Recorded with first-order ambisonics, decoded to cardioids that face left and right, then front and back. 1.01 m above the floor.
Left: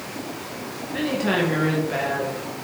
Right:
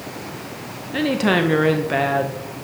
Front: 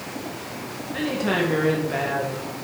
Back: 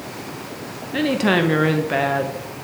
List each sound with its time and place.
0.9 s a woman speaking: 135° right, 0.7 m